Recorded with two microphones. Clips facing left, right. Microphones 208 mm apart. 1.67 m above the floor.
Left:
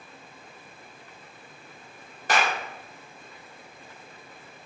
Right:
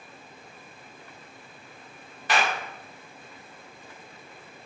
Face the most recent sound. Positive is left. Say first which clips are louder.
# left 1 dB
turn(degrees=45)  # may be behind; listen again after turning